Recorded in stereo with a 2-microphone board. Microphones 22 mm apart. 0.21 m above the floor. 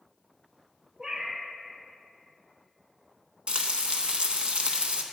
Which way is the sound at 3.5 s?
55° right (ahead or behind).